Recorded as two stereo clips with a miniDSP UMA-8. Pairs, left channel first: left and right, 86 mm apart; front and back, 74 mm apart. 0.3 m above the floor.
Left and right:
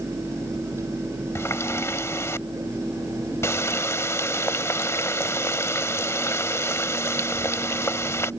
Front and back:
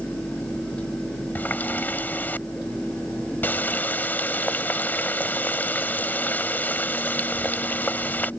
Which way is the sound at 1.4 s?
50° left.